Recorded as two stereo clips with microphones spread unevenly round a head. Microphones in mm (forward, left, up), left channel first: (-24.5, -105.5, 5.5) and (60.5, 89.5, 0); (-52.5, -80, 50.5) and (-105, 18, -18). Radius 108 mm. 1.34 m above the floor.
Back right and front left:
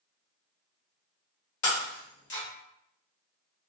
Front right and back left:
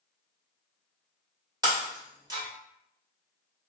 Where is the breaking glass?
165° right, 1.5 m.